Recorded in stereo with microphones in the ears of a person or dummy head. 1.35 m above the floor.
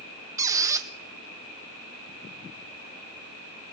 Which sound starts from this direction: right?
A squeak, at 0.4 s.